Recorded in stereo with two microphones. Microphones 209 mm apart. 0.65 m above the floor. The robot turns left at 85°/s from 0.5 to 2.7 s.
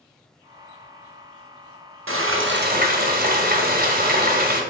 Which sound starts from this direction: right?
Frying, at 2.1 s.